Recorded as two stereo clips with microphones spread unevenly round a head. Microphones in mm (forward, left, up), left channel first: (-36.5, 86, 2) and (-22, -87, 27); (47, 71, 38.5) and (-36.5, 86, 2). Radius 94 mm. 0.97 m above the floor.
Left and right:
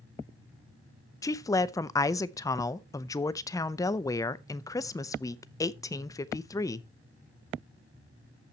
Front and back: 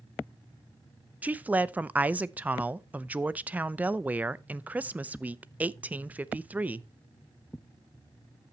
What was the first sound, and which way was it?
A woman speaking, 145° left.